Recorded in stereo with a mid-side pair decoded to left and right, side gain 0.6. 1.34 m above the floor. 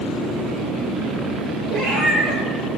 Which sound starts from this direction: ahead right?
A cat meowing, at 1.7 s.